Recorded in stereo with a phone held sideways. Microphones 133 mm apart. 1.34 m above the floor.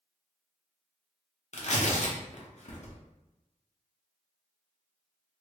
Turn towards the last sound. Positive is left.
turn(degrees=55)  # may be behind; listen again after turning